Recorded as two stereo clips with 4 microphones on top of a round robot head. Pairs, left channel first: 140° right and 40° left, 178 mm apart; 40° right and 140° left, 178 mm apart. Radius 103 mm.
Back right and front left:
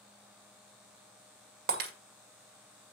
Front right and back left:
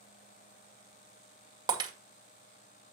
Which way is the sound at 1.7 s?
75° left.